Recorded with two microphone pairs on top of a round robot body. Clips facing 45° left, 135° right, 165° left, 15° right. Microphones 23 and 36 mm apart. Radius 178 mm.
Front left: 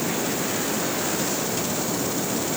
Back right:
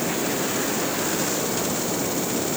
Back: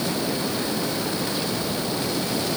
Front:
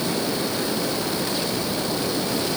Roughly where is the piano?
No piano in this recording.